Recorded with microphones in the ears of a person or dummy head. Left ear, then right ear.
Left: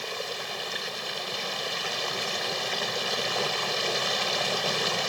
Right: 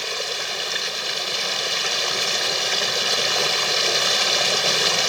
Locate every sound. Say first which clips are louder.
0.0 s running water: right 7 dB; 30° right (ahead or behind)